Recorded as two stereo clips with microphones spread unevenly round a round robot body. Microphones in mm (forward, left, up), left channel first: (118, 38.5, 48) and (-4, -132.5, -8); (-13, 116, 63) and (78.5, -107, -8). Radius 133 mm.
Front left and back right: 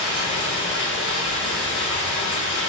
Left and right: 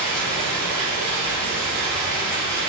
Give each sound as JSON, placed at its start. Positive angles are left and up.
{"t": 0.0, "sound": "running water", "azimuth_deg": 20, "distance_m": 1.6}